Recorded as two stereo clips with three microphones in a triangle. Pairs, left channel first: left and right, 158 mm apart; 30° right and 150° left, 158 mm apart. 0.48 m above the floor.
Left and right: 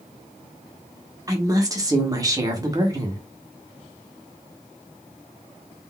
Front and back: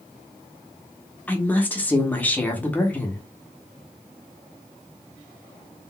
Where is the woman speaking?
95° right, 0.8 m.